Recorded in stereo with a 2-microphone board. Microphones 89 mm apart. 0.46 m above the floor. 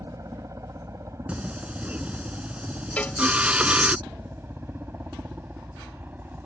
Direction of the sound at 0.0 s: 35° right (ahead or behind).